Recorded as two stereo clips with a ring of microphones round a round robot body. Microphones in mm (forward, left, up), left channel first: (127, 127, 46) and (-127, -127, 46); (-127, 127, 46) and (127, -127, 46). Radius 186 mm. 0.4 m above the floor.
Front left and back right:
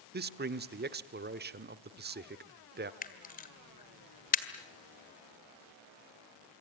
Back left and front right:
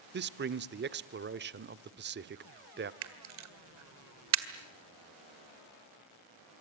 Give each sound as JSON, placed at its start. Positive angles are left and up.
{"t": 0.1, "sound": "a man speaking", "azimuth_deg": -90, "distance_m": 0.9}
{"t": 3.0, "sound": "a camera shutter", "azimuth_deg": -15, "distance_m": 1.9}